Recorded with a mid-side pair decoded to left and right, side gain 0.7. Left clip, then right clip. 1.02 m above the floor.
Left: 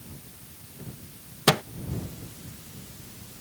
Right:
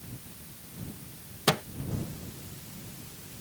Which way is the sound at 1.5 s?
20° left.